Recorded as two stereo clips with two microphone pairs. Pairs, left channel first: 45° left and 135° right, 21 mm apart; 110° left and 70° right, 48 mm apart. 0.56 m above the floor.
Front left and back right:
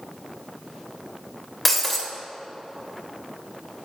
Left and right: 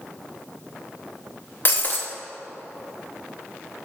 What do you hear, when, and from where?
1.6 s breaking glass: 130° left, 0.6 m